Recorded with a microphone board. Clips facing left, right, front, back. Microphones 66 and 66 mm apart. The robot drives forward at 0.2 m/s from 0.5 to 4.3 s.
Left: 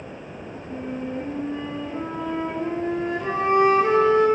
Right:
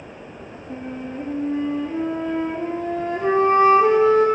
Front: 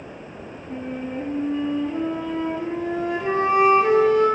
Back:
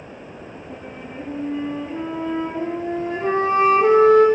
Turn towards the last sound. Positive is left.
turn(degrees=-145)